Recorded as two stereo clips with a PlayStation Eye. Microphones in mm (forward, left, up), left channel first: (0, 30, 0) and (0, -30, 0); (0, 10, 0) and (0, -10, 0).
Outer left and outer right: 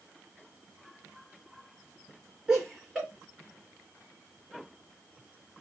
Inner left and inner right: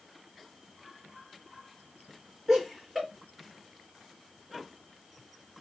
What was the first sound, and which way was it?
Laughter, 10° right (ahead or behind).